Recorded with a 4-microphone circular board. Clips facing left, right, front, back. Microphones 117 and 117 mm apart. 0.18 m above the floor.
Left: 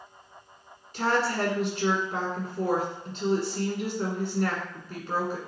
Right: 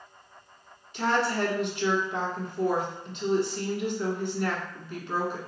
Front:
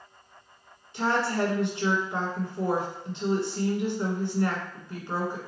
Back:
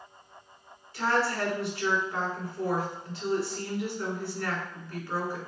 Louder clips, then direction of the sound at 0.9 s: Even, front 1 dB; 60° left.